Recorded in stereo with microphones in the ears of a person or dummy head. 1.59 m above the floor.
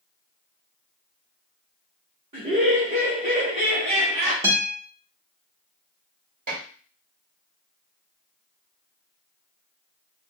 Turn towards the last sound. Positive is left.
turn(degrees=-50)  # may be behind; listen again after turning